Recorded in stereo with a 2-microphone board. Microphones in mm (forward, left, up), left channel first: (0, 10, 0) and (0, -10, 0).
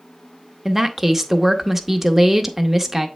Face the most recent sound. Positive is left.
turn(degrees=-15)  # may be behind; listen again after turning